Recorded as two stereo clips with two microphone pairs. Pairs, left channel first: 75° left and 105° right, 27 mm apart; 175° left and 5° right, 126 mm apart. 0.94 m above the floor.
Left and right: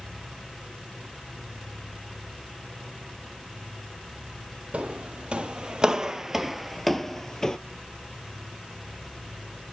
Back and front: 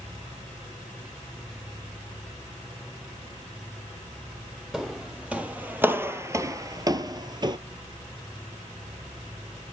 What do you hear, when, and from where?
4.7 s footsteps: 90° right, 1.5 m; by 7.6 s 20° left, 1.1 m